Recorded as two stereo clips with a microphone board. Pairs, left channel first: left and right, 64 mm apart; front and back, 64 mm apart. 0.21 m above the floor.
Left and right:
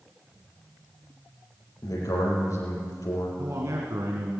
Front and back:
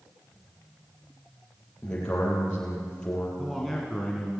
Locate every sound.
1.8 s a man speaking: 75° left, 6 m
3.4 s a man speaking: 85° right, 2 m